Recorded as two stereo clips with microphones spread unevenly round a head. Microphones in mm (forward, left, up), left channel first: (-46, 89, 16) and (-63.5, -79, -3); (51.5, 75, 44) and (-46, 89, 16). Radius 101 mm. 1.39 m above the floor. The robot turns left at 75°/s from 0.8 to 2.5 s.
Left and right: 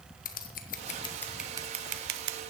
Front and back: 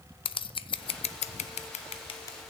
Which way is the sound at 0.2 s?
30° left.